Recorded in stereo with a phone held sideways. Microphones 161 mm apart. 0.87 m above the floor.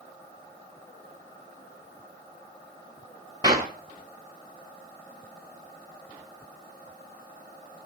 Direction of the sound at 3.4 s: 25° right (ahead or behind).